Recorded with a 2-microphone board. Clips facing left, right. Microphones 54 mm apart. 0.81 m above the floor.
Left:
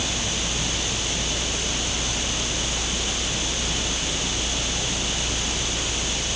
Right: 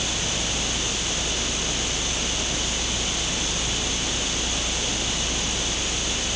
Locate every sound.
Only background noise.